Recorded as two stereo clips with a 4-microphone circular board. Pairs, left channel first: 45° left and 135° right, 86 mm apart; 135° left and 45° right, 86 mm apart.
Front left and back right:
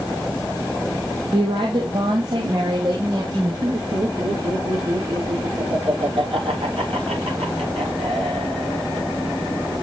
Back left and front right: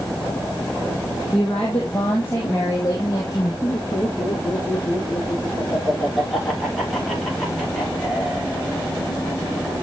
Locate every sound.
1.3 s a woman speaking: 140° right, 3 m; by 3.5 s straight behind, 4 m
3.6 s laughter: 140° right, 7 m